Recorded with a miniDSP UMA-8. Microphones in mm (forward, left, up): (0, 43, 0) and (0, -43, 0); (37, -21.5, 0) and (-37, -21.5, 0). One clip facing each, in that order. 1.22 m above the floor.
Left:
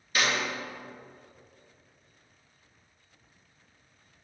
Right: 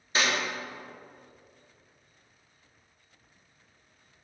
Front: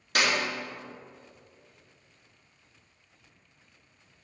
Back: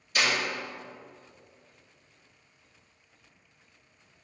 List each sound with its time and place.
0.1 s a clap: 25° right, 2.5 m